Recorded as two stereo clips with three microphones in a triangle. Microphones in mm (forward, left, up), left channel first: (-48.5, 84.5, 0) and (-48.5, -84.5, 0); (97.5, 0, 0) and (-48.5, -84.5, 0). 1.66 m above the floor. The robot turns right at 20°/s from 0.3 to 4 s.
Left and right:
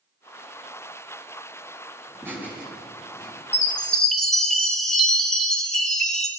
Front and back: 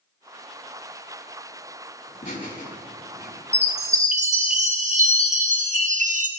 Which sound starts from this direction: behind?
A chime, at 3.5 s.